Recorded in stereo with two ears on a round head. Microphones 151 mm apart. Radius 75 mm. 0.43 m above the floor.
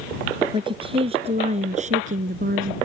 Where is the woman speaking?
30° right (ahead or behind); by 2.8 s 55° right (ahead or behind).